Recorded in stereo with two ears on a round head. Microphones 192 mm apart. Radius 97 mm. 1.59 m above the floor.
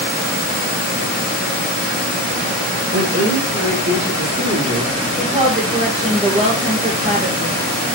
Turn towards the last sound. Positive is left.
turn(degrees=-30)  # may be behind; listen again after turning